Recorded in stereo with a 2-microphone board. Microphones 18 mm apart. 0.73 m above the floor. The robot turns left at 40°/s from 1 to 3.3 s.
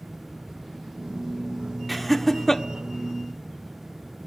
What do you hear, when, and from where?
1.9 s laughter: 5° right (ahead or behind), 1.5 m; by 2.6 s 25° left (ahead or behind), 1.5 m